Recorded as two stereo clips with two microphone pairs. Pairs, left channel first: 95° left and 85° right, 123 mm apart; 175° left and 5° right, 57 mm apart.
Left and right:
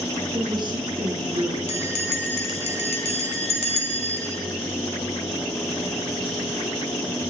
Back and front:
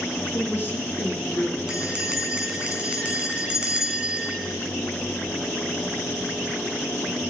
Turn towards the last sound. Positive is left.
turn(degrees=65)